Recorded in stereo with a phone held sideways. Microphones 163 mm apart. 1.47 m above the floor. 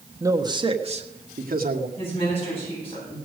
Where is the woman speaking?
35° left (ahead or behind), 7.5 m.